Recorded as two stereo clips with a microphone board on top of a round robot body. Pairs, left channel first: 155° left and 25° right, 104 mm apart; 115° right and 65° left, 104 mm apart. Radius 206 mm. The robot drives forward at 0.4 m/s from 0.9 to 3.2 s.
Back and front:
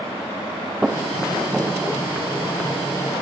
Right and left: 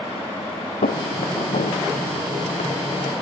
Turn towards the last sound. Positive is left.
turn(degrees=-100)